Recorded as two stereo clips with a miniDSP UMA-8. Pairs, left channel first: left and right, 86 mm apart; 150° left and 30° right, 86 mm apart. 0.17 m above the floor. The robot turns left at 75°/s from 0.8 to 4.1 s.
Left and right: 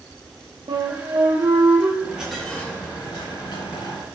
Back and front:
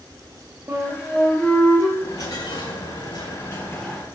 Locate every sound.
0.7 s a flute: 85° right, 4 m; by 1.9 s 165° right, 4 m
2.0 s a dropped coin: 155° right, 7 m; by 4.1 s 50° left, 7 m